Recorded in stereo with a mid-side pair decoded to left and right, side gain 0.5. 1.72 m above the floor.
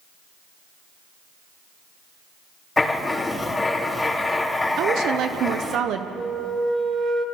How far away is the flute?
About 4 m.